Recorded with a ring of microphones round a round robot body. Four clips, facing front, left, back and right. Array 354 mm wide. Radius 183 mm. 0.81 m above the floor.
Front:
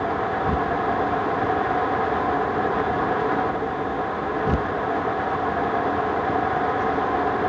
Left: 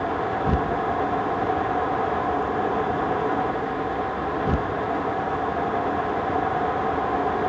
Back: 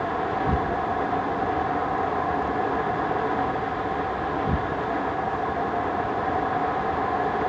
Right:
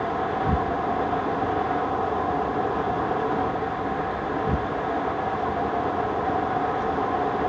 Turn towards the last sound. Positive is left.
No sound to turn to.